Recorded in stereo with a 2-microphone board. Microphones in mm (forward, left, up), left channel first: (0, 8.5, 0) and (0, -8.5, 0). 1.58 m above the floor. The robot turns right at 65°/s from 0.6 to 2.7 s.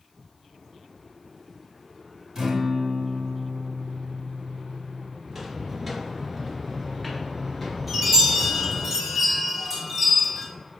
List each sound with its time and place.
2.4 s a guitar: 45° right (ahead or behind), 1.3 m; by 5.1 s 65° right (ahead or behind), 1.3 m
5.2 s footsteps: 25° right (ahead or behind), 1.7 m; by 8.9 s 35° left (ahead or behind), 1.8 m
7.9 s a chime: 10° right (ahead or behind), 1.4 m